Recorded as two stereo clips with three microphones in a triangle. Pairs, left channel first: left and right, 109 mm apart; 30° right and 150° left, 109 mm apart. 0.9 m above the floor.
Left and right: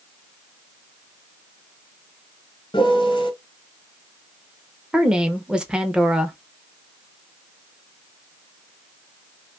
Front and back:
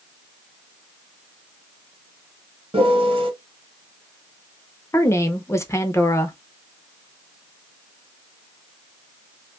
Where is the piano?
130° left, 1.1 m.